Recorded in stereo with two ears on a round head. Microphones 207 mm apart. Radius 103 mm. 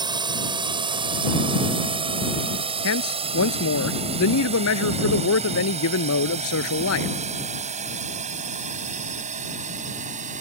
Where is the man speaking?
70° left (ahead or behind).